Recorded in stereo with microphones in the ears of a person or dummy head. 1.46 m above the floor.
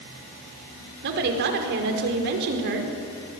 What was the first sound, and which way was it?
A woman speaking, 65° right (ahead or behind).